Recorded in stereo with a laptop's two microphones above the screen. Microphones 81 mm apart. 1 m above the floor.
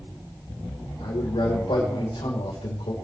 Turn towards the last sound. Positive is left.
turn(degrees=80)